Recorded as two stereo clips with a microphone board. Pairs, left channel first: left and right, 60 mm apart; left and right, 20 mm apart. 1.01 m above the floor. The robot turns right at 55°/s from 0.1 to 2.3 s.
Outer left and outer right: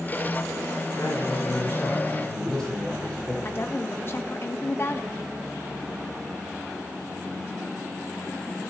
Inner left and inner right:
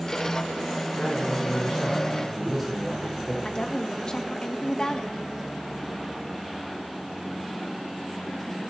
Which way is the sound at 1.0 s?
95° left.